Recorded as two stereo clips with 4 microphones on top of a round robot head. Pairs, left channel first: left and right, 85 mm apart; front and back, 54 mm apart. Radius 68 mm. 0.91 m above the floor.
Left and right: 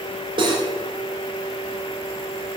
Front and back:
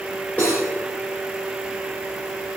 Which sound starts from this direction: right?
Cutlery clinking, at 0.4 s.